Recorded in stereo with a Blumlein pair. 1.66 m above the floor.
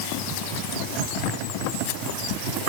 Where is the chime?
No chime in this recording.